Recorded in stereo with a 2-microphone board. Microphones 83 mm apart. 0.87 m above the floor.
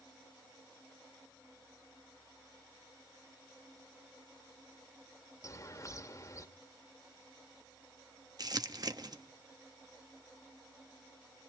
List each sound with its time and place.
5.4 s a bird: 40° left (ahead or behind), 1.7 m
8.4 s crumpling: 50° right (ahead or behind), 1.2 m